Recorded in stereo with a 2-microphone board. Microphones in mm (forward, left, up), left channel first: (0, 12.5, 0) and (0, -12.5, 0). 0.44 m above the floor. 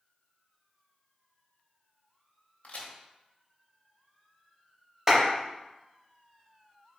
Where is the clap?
15° right (ahead or behind), 2.0 m.